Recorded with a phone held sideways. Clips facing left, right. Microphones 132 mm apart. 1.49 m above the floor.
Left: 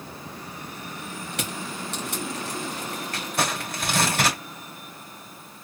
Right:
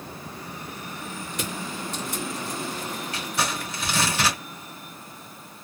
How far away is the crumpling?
About 2 m.